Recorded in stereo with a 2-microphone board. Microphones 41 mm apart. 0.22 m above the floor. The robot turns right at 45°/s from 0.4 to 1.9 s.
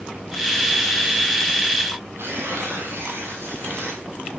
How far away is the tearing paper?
About 3.5 m.